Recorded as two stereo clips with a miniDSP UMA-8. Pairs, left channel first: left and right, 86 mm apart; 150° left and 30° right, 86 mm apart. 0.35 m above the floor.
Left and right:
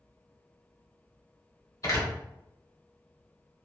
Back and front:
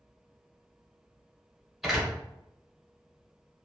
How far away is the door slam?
About 0.9 m.